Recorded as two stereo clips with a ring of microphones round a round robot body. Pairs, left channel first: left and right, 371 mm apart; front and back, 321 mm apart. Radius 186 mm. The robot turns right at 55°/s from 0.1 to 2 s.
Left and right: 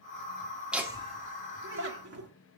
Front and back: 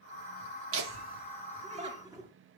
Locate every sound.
0.7 s laughter: 175° right, 1.2 m; by 2.3 s 105° right, 1.2 m